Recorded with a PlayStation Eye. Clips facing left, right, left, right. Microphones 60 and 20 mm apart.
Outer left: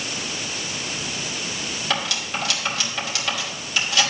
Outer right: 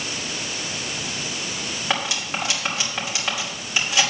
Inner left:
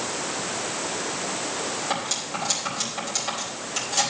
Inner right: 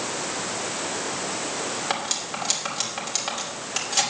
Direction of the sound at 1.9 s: 20° right (ahead or behind).